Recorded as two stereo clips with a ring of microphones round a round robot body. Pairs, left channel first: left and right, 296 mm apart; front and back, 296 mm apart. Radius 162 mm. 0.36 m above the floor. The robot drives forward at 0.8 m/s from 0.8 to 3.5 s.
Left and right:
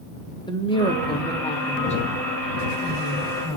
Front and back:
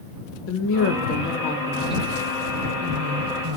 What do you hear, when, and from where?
0.5 s a woman speaking: 20° left, 1.3 m; by 3.6 s 165° left, 1.6 m